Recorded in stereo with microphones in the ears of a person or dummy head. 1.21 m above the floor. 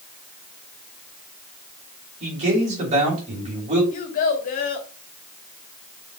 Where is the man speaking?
40° right (ahead or behind), 3 m.